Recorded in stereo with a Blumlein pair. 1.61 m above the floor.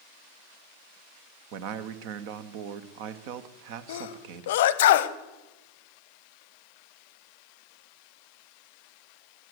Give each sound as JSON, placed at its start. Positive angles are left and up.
{"t": 1.5, "sound": "a man speaking", "azimuth_deg": -45, "distance_m": 1.0}
{"t": 3.9, "sound": "a sneeze", "azimuth_deg": 55, "distance_m": 0.8}